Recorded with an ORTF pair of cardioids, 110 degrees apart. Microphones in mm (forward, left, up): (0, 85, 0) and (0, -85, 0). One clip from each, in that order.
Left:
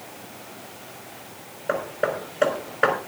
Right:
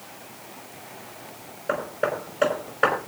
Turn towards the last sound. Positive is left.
turn(degrees=-5)